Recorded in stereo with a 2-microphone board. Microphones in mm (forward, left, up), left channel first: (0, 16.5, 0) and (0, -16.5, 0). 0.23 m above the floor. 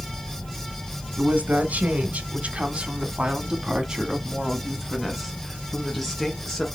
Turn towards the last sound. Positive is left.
turn(degrees=10)  # may be behind; listen again after turning